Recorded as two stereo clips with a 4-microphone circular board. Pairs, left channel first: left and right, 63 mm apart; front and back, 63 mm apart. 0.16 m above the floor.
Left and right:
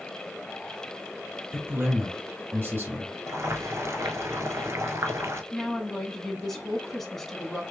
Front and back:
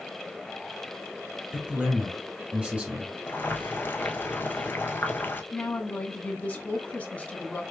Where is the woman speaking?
10° left, 1.2 m.